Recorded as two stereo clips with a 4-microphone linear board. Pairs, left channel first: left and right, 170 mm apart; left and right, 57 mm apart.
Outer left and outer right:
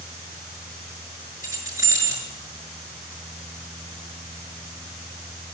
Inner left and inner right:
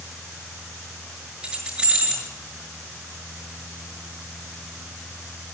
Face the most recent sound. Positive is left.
turn(degrees=-20)  # may be behind; listen again after turning